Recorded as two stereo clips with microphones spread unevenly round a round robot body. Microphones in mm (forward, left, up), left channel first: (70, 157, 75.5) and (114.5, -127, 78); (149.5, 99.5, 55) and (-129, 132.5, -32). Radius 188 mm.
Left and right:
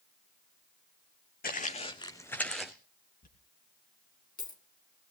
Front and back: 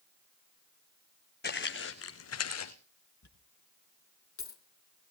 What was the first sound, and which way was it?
Footsteps, 40° left.